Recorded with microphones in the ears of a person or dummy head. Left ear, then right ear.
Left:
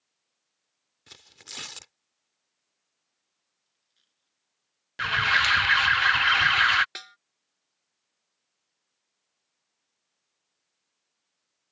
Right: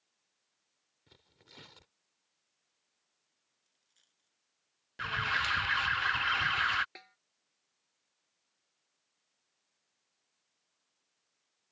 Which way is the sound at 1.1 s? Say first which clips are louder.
Left 16 dB; 50° left (ahead or behind).